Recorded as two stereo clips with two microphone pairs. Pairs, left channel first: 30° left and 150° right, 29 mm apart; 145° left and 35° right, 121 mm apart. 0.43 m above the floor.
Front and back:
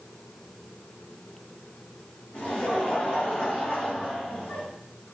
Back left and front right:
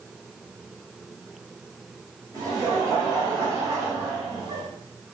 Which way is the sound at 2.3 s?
15° left.